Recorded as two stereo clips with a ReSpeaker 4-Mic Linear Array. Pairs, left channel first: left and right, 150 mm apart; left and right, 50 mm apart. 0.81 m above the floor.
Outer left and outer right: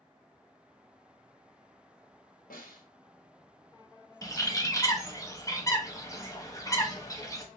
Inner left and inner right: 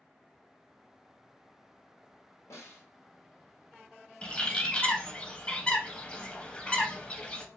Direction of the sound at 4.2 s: 20° left (ahead or behind).